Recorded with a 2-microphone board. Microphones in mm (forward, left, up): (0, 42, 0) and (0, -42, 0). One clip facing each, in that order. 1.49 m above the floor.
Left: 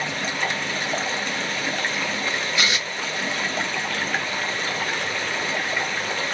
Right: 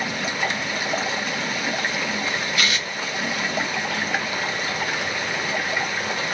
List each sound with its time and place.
0.0 s running water: 10° right (ahead or behind), 1.0 m
2.6 s tearing paper: 20° left (ahead or behind), 1.2 m